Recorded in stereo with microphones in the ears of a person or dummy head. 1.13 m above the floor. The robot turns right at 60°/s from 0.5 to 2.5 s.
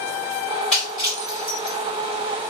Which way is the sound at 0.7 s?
5° left (ahead or behind).